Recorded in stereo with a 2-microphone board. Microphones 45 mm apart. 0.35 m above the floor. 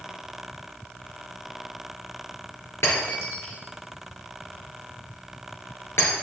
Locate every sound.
2.8 s breaking glass: 70° left (ahead or behind), 3.5 m